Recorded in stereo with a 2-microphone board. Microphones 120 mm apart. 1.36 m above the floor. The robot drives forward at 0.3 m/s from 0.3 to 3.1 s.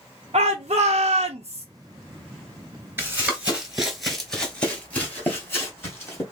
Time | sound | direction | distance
0.3 | a shout | 75° right (ahead or behind) | 0.7 m
3.0 | running footsteps | 20° right (ahead or behind) | 1.4 m